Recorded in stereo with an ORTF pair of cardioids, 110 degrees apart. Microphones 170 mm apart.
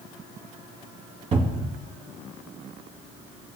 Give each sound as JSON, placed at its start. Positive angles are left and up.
{"t": 1.3, "sound": "a cupboard door", "azimuth_deg": -40, "distance_m": 2.5}